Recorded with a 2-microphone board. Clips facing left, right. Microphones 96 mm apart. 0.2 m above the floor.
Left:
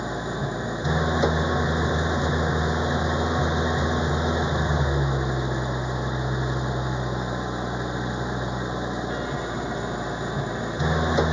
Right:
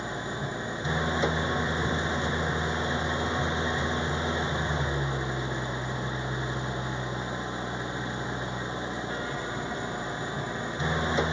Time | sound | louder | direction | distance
0.0 | an engine running | left 5 dB | 20° left (ahead or behind) | ?